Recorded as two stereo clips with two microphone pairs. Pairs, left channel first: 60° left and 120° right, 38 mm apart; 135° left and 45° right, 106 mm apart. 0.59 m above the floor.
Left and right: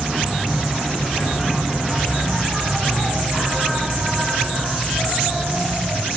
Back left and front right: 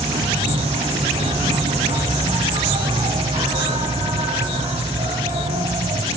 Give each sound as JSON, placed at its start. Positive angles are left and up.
{"t": 0.0, "sound": "an insect", "azimuth_deg": -45, "distance_m": 2.0}